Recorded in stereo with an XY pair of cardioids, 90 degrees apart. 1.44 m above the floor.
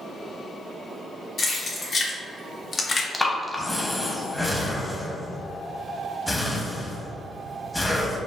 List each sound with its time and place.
1.4 s keys jangling: 60° left, 1.3 m; by 3.0 s 50° left, 0.5 m
3.1 s breathing: 15° left, 0.8 m